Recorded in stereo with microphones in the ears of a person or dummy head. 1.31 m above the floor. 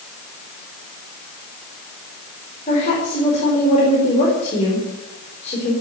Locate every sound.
2.7 s a woman speaking: 40° left (ahead or behind), 4.5 m